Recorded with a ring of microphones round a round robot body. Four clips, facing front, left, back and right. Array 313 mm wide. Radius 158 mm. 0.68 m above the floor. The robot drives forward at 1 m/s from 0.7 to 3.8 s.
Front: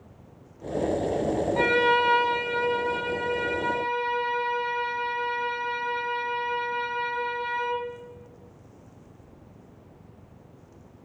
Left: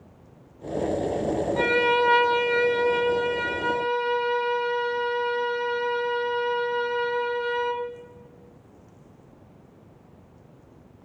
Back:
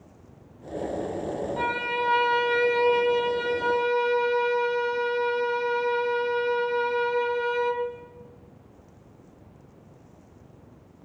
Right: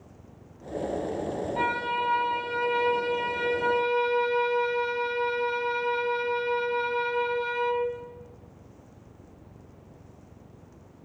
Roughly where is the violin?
Ahead left.